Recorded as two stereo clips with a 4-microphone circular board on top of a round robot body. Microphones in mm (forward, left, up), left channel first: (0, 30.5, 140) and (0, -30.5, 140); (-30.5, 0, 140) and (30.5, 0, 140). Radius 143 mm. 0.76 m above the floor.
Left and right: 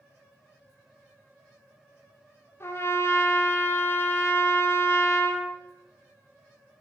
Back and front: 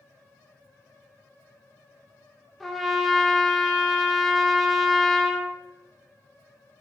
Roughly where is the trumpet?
Left.